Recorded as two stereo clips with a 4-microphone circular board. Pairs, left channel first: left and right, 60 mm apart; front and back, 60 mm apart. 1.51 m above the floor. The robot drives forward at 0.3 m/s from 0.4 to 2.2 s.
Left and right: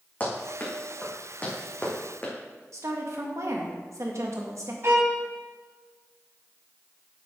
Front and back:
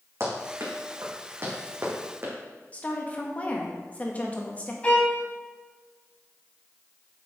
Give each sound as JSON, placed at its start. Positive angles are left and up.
{"t": 0.2, "sound": "running footsteps", "azimuth_deg": 145, "distance_m": 3.5}
{"t": 2.7, "sound": "a woman speaking", "azimuth_deg": -65, "distance_m": 1.7}
{"t": 4.8, "sound": "a violin", "azimuth_deg": -60, "distance_m": 2.0}